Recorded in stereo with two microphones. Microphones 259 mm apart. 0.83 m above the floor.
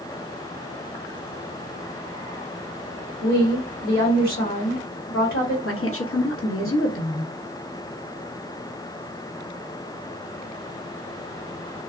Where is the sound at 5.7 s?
55° left (ahead or behind), 0.9 m.